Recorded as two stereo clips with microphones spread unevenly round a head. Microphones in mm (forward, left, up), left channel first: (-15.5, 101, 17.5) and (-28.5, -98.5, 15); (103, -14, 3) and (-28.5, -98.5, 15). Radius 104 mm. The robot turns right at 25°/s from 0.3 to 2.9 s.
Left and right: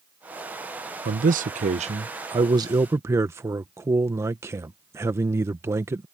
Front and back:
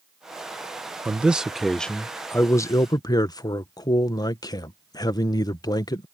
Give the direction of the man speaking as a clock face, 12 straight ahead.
2 o'clock.